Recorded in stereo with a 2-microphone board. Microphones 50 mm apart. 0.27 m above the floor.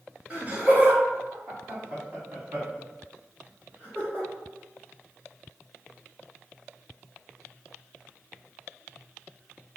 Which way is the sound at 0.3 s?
30° right (ahead or behind).